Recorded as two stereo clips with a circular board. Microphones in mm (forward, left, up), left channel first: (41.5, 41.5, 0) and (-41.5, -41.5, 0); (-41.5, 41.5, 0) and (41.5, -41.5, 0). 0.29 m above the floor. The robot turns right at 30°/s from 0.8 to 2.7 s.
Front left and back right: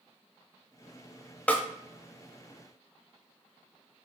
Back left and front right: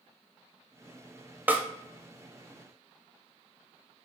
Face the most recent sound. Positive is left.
turn(degrees=30)